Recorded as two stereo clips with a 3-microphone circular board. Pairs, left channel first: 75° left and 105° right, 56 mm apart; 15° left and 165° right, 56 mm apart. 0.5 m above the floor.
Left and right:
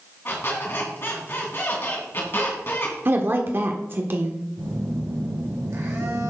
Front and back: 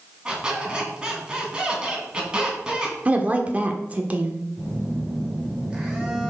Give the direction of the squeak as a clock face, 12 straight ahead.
8 o'clock.